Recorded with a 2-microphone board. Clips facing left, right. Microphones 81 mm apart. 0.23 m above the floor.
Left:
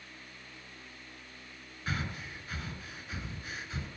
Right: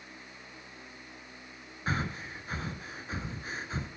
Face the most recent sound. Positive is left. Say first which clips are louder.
# right 4 dB
turn(degrees=-30)  # may be behind; listen again after turning